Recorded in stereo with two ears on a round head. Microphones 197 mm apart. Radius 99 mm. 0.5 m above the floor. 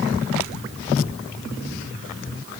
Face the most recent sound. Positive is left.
No sound to turn to.